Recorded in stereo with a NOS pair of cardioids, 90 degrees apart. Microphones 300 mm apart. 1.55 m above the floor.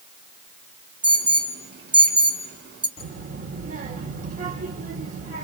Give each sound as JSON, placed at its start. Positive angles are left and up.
{"t": 1.0, "sound": "an alarm", "azimuth_deg": -50, "distance_m": 4.5}
{"t": 3.0, "sound": "a child speaking", "azimuth_deg": -55, "distance_m": 4.0}